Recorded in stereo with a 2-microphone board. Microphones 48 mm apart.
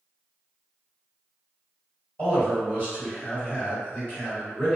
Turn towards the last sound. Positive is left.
turn(degrees=25)  # may be behind; listen again after turning